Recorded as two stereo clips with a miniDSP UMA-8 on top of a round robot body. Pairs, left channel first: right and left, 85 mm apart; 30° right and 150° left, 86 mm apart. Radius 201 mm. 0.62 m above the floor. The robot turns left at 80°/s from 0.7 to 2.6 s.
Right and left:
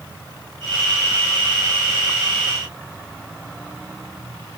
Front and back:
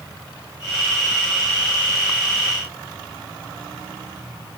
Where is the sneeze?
I don't hear a sneeze.